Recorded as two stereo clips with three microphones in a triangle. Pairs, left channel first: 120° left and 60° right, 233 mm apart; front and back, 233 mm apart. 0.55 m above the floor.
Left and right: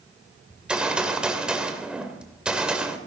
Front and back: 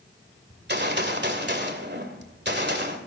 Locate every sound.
0.5 s a gunshot: 145° right, 2 m